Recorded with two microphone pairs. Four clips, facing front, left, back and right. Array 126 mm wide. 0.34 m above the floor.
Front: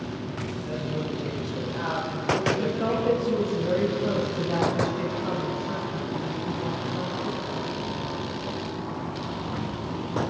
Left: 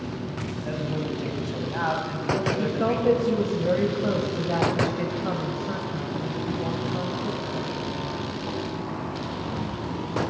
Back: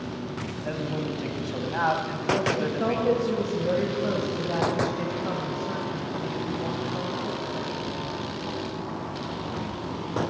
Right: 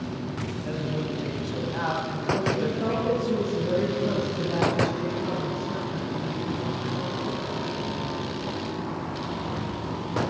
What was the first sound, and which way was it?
A man speaking, 170° left.